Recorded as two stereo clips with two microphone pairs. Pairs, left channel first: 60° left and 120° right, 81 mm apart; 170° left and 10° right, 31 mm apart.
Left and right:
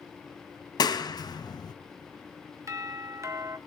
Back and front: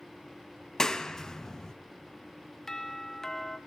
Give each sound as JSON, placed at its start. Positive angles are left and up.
{"t": 0.8, "sound": "a clap", "azimuth_deg": 95, "distance_m": 0.8}
{"t": 2.7, "sound": "a doorbell", "azimuth_deg": -115, "distance_m": 1.1}